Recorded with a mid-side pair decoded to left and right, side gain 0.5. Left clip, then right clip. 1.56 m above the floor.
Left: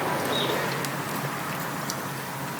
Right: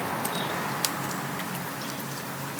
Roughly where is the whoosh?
No whoosh in this recording.